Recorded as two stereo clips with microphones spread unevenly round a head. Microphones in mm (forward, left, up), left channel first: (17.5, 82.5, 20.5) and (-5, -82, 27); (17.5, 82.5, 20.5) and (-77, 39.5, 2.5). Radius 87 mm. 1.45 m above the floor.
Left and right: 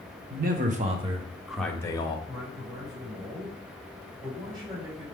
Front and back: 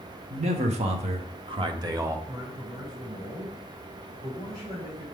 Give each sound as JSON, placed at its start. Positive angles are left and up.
{"t": 0.3, "sound": "a man speaking", "azimuth_deg": -130, "distance_m": 1.6}
{"t": 2.3, "sound": "a man speaking", "azimuth_deg": -35, "distance_m": 5.0}